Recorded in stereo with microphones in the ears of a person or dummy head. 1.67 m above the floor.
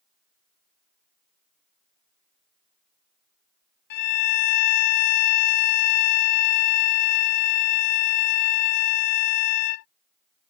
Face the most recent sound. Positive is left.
turn(degrees=50)  # may be behind; listen again after turning